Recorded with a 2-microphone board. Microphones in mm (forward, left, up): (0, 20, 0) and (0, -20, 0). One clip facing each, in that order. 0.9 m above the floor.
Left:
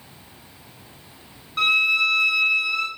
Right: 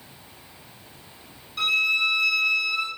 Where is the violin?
55° left (ahead or behind), 2 m.